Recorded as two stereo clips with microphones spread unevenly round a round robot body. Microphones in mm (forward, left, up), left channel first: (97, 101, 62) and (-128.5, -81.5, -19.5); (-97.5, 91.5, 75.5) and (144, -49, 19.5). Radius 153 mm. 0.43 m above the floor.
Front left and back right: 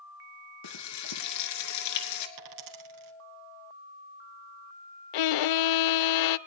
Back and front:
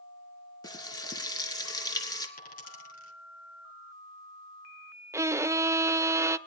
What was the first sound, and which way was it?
Frying, 70° left.